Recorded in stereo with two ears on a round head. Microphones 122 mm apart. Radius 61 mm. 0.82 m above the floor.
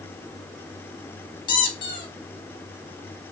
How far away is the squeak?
About 0.5 m.